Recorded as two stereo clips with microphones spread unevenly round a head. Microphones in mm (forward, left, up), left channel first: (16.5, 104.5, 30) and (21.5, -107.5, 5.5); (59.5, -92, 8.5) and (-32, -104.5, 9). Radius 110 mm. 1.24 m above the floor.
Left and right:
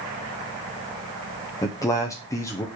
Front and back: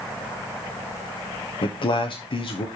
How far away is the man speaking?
About 0.8 m.